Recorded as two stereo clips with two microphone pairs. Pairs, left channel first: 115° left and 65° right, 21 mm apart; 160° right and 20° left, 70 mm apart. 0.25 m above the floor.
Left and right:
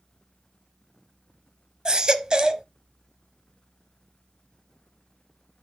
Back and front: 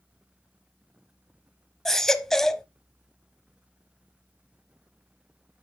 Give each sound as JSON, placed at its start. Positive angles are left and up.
{"t": 1.9, "sound": "a baby crying", "azimuth_deg": -80, "distance_m": 0.9}